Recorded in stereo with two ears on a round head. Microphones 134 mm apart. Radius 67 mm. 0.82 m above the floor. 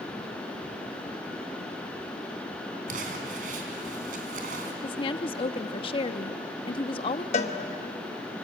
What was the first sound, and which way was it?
Crumpling, 55° right (ahead or behind).